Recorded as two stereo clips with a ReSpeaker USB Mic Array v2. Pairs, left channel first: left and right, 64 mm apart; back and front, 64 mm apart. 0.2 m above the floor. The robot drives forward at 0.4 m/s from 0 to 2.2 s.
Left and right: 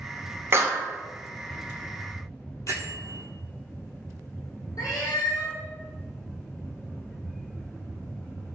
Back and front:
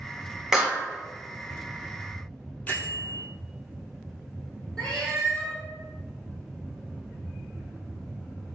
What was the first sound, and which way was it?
A clap, 80° right.